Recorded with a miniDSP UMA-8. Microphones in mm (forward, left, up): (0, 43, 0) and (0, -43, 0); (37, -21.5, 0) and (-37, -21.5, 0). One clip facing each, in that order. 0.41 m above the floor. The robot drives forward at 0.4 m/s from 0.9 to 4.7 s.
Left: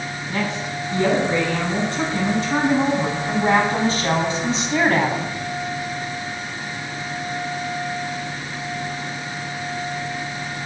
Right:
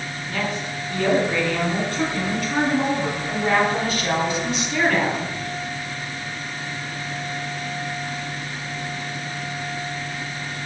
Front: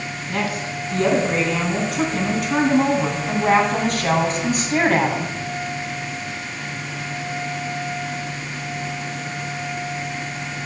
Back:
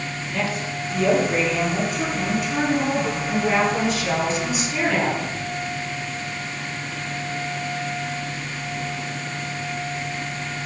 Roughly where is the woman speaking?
Ahead left.